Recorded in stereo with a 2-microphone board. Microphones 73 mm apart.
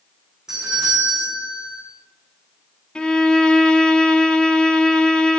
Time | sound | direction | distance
0.5 | a doorbell | 10° right (ahead or behind) | 6.5 m
3.0 | a violin | 10° left (ahead or behind) | 0.6 m